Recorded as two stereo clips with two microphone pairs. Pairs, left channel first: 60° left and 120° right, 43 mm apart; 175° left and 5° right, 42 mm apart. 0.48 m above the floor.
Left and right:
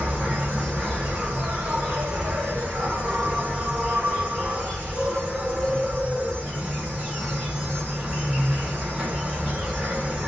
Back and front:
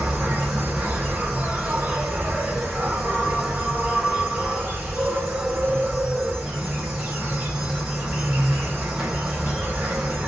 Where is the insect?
65° right, 3 m.